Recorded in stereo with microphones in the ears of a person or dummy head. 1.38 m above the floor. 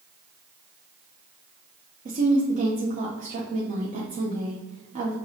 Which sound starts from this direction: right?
A woman speaking, at 2.0 s.